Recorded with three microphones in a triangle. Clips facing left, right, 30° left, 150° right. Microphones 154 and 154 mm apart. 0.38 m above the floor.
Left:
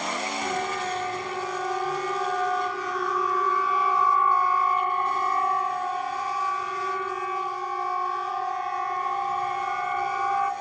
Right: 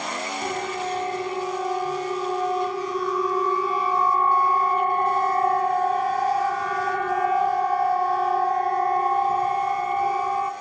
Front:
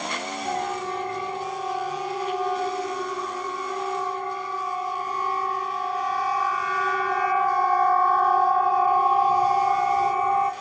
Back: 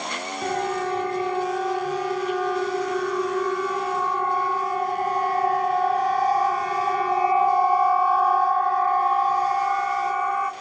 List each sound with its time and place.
0.4 s a siren: 160° right, 5 m; by 10.5 s 30° right, 3 m